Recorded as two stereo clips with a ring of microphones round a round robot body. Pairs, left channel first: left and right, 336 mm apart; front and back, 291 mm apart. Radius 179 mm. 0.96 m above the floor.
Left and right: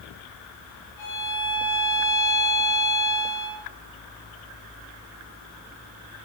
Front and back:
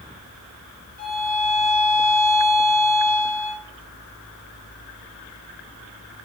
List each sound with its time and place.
1.0 s a violin: 125° left, 3 m